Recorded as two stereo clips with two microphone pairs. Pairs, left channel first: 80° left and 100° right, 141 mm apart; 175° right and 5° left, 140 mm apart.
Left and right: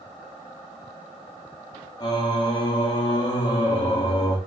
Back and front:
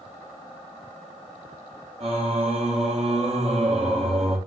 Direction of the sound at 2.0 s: 25° left.